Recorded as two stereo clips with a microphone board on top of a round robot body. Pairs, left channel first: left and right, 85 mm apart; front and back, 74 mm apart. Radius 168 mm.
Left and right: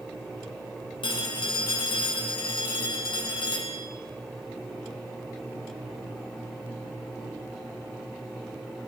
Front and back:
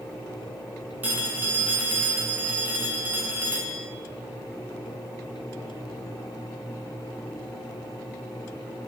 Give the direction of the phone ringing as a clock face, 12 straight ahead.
8 o'clock.